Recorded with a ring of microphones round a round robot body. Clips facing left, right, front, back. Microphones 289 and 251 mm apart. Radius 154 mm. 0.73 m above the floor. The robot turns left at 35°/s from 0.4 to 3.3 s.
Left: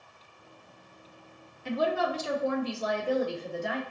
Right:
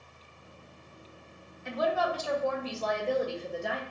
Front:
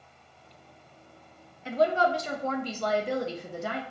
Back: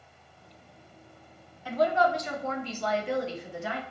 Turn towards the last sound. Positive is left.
turn(degrees=0)